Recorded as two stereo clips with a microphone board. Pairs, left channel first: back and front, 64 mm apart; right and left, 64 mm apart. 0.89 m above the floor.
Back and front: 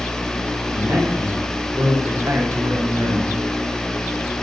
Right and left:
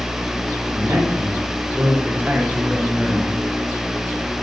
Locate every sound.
0.7 s a man speaking: 40° left, 2.5 m; by 3.3 s 5° left, 1.0 m